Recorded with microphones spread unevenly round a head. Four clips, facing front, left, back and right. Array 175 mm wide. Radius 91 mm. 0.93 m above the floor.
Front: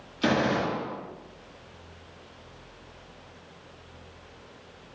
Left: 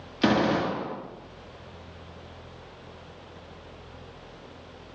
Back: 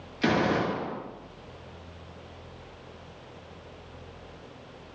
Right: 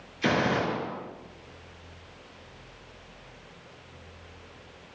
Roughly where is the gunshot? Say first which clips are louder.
Left 3 dB, even; left.